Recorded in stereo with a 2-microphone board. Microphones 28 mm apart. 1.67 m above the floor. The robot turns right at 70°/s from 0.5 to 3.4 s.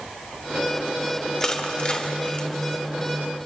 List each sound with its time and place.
1.4 s crushing: 20° left (ahead or behind), 1.5 m; by 2.5 s 30° left (ahead or behind), 1.5 m